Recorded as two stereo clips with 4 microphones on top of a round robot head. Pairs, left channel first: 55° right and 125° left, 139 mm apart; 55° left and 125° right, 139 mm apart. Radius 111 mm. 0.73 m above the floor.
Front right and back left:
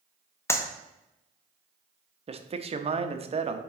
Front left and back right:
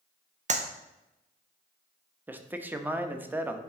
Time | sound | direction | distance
0.5 | a clap | 120° right | 0.9 m
2.3 | a man speaking | 160° left | 0.8 m